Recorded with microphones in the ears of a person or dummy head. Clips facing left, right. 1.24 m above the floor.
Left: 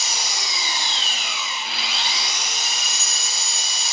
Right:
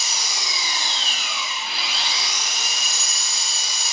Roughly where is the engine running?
Left.